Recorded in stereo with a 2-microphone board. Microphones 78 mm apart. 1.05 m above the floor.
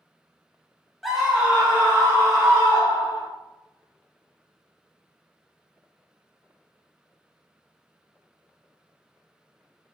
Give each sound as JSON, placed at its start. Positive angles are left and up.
{"t": 1.0, "sound": "a scream", "side_deg": 0, "distance_m": 0.6}